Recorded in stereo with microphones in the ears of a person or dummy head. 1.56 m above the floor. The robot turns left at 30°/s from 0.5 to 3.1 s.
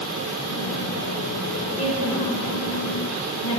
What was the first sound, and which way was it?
A woman speaking, 20° left (ahead or behind).